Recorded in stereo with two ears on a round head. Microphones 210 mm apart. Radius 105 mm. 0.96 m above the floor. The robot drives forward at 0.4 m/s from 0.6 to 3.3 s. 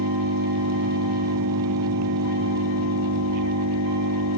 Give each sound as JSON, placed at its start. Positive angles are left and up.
{"t": 0.0, "sound": "an engine running", "side_deg": -85}